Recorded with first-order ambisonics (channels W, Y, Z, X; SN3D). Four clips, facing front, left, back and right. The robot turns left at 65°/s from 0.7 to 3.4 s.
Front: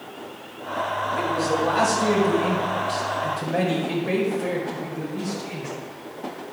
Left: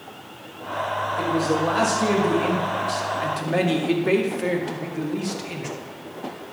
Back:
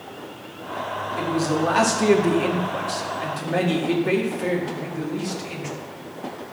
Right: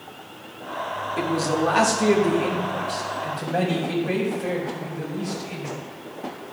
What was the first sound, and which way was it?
A man speaking, 100° right.